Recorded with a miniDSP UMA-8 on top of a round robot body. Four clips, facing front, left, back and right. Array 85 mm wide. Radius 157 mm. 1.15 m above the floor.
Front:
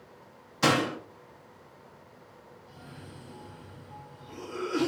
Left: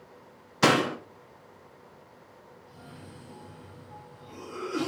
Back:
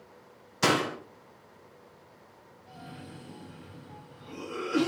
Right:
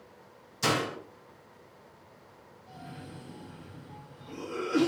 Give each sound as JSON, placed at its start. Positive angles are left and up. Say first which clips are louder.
{"t": 0.6, "sound": "a door slam", "louder": "left 7 dB, front 1 dB", "azimuth_deg": 95, "distance_m": 0.7}
{"t": 2.7, "sound": "a cough", "louder": "right 4 dB, back 4 dB", "azimuth_deg": -150, "distance_m": 1.7}